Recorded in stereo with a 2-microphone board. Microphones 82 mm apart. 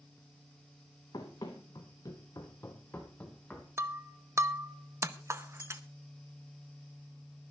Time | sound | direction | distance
1.1 | running footsteps | 50° left (ahead or behind) | 2.5 m
3.8 | breaking glass | 30° right (ahead or behind) | 0.7 m